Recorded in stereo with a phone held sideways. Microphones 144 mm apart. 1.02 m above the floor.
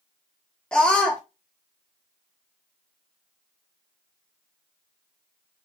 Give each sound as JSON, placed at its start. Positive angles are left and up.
{"t": 0.7, "sound": "a scream", "side_deg": 5, "distance_m": 0.6}